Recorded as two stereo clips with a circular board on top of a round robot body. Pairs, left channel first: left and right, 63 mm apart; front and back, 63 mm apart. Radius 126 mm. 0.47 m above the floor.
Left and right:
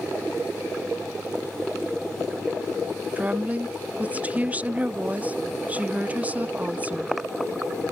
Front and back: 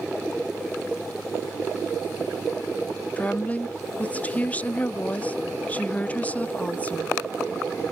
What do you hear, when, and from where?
3.2 s a woman speaking: 45° right